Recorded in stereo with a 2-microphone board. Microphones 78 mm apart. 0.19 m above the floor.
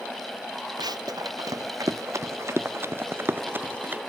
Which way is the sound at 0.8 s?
60° right (ahead or behind).